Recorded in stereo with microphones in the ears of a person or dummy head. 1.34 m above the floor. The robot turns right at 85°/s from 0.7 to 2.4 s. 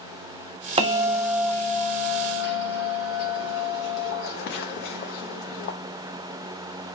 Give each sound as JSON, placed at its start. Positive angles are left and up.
{"t": 0.8, "sound": "a bell", "azimuth_deg": -40, "distance_m": 0.6}